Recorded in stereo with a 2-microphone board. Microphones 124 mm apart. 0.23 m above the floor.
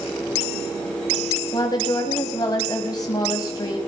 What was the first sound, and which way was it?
A woman speaking, 35° left (ahead or behind).